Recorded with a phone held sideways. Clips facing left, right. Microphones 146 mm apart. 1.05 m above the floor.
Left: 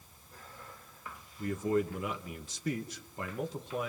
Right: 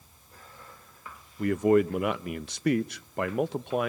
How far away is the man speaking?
About 0.9 m.